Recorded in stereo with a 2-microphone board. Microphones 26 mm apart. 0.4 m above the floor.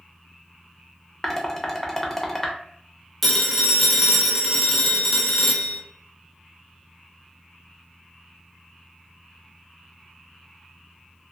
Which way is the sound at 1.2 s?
15° left (ahead or behind).